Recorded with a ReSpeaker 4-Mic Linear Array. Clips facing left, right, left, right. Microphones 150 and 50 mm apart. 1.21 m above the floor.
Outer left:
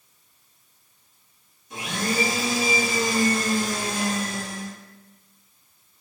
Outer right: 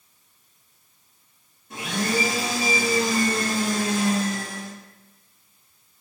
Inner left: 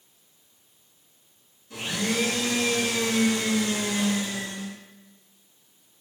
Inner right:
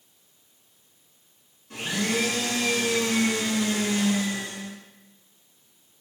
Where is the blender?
60° right (ahead or behind), 2.0 m.